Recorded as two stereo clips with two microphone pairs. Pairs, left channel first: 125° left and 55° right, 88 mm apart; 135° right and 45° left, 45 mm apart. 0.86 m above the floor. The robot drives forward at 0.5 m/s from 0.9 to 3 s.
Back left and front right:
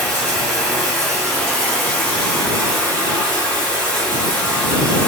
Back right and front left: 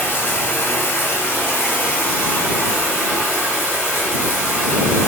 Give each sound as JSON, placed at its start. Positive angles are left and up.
{"t": 0.0, "sound": "running water", "azimuth_deg": -160, "distance_m": 1.9}